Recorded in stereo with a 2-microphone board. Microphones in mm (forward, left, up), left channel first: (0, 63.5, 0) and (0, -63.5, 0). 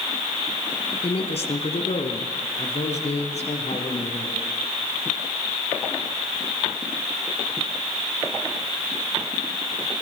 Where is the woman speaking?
50° left (ahead or behind), 1.9 m; by 4.5 s 60° left (ahead or behind), 5 m.